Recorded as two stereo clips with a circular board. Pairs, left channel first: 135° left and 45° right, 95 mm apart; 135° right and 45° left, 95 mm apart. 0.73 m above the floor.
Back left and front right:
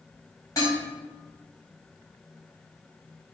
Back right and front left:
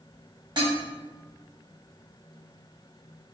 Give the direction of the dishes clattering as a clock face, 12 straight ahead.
9 o'clock.